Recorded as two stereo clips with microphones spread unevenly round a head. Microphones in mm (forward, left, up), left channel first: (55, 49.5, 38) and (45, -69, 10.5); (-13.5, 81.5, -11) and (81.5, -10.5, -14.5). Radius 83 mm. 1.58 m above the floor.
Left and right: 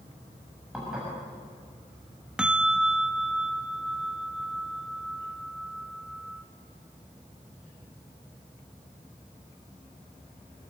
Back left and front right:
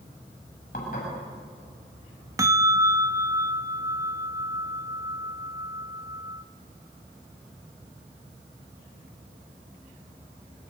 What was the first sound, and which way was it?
Dishes clattering, straight behind.